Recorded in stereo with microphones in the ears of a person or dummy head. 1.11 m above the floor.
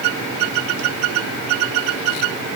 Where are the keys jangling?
No keys jangling in this recording.